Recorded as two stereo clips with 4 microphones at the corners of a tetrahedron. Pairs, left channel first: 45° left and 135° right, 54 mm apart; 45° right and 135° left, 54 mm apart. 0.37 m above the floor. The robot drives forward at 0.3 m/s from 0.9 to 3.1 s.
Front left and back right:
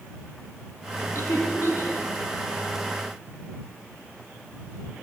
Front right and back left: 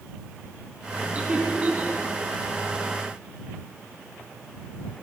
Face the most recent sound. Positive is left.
turn(degrees=75)